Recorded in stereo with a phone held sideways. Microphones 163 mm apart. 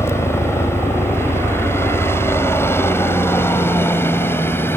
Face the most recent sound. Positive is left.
turn(degrees=15)  # may be behind; listen again after turning